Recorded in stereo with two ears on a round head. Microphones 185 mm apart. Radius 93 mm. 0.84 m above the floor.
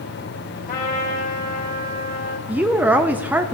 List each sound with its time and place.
0.7 s a trumpet: 40° left (ahead or behind), 2.5 m
2.5 s a woman speaking: 10° right (ahead or behind), 0.5 m